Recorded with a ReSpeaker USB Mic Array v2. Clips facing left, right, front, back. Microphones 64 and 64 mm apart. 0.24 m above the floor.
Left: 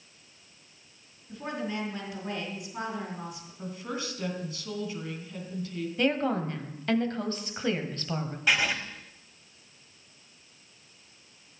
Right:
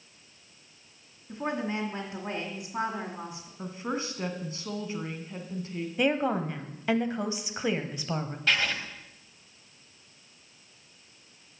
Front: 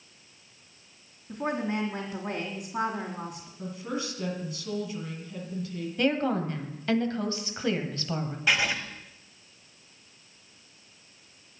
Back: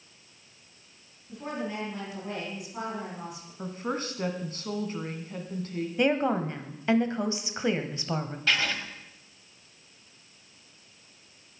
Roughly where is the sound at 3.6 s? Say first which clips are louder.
Right 3 dB, back 2 dB; behind right.